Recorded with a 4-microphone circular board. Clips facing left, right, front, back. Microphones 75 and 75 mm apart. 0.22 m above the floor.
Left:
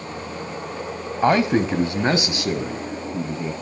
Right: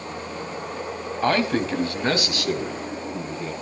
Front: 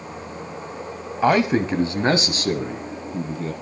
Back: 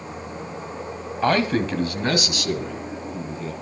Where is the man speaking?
60° left, 1.2 m; by 3.5 s 30° left, 1.9 m.